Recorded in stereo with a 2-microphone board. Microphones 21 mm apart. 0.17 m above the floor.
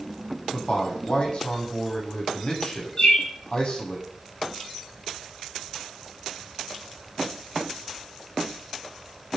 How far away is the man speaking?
About 9 m.